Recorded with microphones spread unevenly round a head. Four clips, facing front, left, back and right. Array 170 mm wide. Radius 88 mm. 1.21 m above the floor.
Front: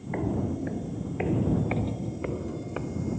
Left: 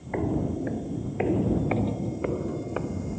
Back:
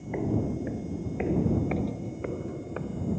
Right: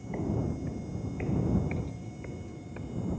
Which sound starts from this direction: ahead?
Footsteps, at 0.1 s.